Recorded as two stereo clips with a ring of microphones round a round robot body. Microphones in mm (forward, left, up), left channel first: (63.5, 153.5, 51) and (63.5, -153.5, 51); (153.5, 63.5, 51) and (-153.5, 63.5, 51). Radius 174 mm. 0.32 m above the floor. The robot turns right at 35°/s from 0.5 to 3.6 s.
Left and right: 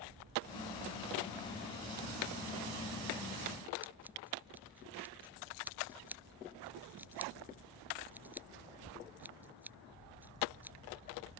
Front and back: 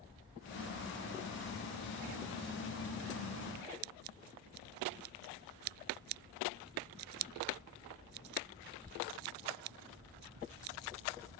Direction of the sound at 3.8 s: 175° right.